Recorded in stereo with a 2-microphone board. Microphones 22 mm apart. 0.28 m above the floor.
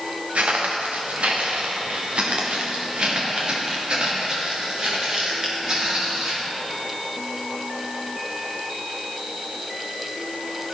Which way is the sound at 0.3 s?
85° right.